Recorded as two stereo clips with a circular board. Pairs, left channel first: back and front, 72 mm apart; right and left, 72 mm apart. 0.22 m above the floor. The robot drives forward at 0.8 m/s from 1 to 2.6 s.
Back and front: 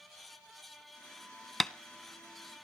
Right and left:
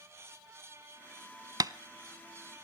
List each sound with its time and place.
1.6 s tapping: 90° left, 0.6 m; by 1.7 s 100° left, 0.6 m